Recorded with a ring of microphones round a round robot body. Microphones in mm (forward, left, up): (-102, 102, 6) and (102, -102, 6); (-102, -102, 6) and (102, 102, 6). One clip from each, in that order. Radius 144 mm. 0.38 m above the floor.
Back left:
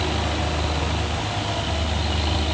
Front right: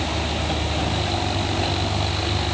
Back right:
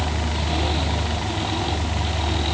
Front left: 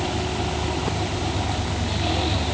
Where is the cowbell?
I don't hear a cowbell.